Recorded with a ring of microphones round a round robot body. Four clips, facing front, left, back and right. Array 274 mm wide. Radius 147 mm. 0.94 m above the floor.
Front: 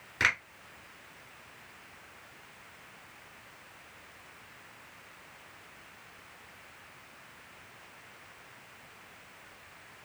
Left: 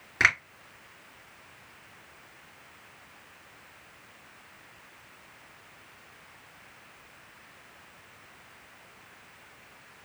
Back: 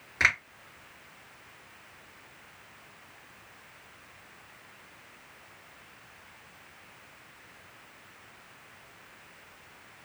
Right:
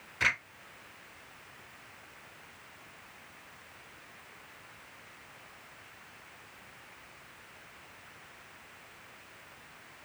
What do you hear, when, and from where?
0.2 s a finger snap: 100° left, 2 m